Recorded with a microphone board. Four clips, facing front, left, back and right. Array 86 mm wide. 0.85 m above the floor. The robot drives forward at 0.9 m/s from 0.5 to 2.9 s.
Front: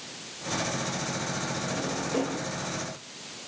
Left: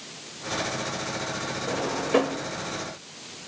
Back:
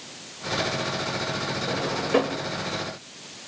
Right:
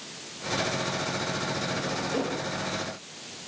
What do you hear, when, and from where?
1.7 s a drawer: 125° left, 1.5 m; by 2.5 s 140° left, 2 m